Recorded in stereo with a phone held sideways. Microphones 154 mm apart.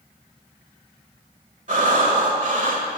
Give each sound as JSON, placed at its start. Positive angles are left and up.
{"t": 1.7, "sound": "breathing", "side_deg": -55, "distance_m": 1.3}